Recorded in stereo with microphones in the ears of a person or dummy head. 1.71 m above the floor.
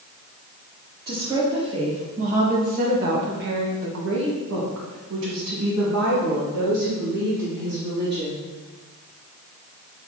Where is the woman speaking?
20° right (ahead or behind), 2 m; by 8.4 s 55° right (ahead or behind), 3.5 m.